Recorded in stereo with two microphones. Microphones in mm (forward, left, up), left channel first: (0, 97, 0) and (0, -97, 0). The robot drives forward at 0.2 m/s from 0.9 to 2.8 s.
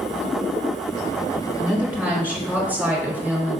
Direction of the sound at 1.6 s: 10° right (ahead or behind).